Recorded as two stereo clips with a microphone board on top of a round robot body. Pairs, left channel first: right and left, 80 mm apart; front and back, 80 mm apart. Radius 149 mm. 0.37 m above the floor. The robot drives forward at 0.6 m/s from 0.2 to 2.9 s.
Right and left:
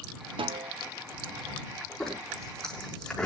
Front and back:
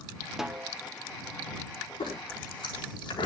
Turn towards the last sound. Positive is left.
turn(degrees=-5)